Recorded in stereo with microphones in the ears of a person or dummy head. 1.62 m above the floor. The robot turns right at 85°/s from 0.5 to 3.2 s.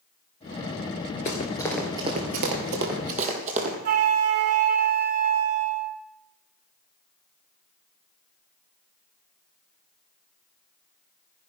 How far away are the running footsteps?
About 1.7 m.